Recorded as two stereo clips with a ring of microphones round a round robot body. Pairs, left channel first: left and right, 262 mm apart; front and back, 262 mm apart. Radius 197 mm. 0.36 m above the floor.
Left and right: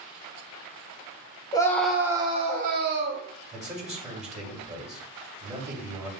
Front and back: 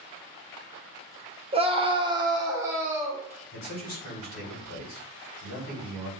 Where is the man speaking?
30° right, 3 m.